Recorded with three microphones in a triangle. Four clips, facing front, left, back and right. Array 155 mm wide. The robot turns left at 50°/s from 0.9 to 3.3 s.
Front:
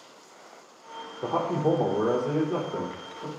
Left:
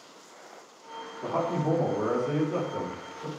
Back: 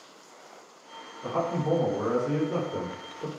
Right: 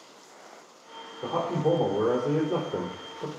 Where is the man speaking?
15° right, 4.5 m; by 3.3 s 120° right, 4.5 m.